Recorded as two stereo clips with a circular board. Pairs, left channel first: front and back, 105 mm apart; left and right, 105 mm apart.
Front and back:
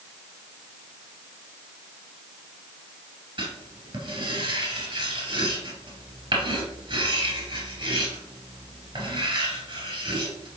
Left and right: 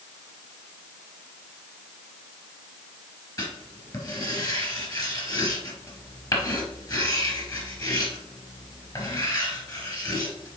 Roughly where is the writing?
Behind left.